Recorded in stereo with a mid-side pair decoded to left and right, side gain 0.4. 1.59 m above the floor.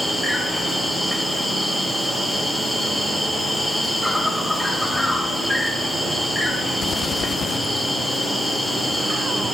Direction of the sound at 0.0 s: 10° left.